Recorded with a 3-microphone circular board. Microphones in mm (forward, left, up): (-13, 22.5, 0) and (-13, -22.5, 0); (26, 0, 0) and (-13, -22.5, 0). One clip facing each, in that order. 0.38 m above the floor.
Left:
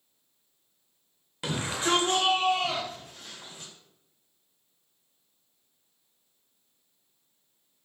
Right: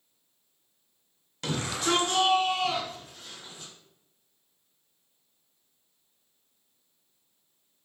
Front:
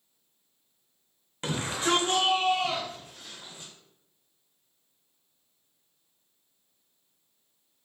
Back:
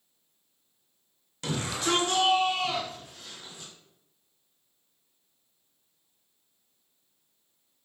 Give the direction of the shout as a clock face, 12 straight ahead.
11 o'clock.